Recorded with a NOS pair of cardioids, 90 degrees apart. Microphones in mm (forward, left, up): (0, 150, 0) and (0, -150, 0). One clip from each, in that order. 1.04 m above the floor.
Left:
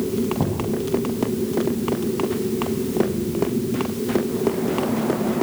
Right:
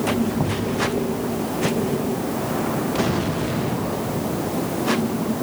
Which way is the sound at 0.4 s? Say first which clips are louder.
Right 1 dB; 10° right.